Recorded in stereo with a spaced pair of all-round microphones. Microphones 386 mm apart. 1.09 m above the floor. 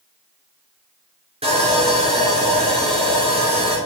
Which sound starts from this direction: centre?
Sawing, at 1.4 s.